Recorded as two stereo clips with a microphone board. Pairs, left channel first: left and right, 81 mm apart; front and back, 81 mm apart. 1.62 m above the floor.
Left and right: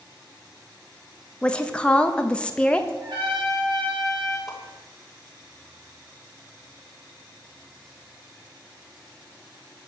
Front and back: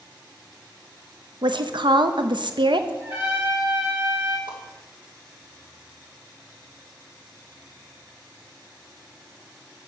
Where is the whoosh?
175° right, 1.3 m.